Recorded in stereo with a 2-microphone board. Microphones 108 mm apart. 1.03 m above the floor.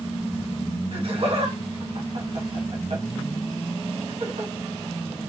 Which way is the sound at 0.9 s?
55° right (ahead or behind).